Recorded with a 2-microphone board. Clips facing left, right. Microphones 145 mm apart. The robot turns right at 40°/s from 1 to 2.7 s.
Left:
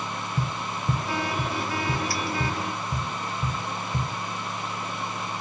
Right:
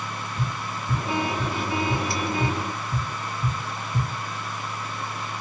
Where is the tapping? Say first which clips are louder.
Even; 75° left (ahead or behind), 1.6 m; by 4.1 s 35° left (ahead or behind), 1.6 m.